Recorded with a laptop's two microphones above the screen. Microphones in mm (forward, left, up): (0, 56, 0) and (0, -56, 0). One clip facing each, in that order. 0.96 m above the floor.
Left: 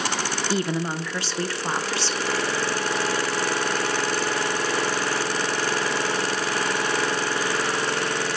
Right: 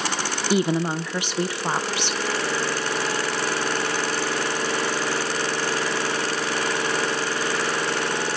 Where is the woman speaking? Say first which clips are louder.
Right 5 dB; 20° right (ahead or behind), 0.7 m.